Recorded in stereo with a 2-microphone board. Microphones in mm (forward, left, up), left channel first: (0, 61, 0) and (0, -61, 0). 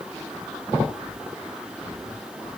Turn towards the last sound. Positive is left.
No sound to turn to.